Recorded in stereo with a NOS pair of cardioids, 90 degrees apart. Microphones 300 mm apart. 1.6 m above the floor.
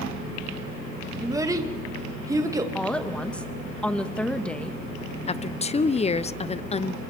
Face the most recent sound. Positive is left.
turn(degrees=20)